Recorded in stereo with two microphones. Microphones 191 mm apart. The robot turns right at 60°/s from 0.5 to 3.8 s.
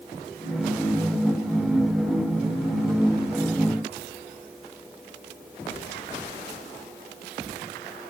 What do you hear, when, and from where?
Only background noise.